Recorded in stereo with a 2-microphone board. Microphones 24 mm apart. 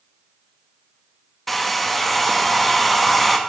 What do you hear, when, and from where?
1.5 s a hair dryer: 5° left (ahead or behind), 0.7 m